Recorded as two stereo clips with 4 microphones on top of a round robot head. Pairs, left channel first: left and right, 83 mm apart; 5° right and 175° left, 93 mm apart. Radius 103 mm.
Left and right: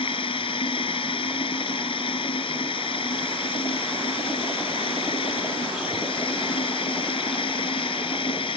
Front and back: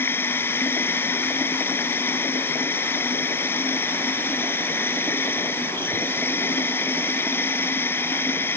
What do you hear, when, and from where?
0.0 s running water: 60° left